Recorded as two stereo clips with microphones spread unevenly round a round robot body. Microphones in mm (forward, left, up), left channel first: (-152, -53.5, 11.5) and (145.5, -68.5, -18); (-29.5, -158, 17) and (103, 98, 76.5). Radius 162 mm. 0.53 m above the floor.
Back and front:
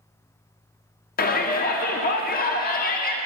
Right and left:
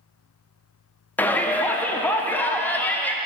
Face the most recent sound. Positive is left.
turn(degrees=-160)